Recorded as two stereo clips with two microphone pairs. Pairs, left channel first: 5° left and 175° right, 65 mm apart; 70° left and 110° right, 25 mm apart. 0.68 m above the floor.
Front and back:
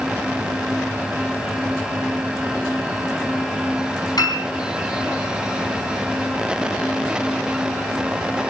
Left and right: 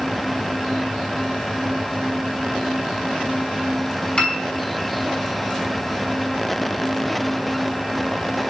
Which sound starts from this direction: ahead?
A piano, at 4.2 s.